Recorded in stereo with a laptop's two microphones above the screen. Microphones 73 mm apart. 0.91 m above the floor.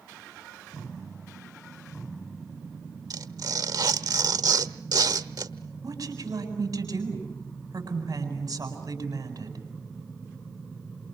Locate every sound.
3.1 s tearing paper: 65° right (ahead or behind), 1.2 m
5.8 s a woman speaking: 55° right (ahead or behind), 8 m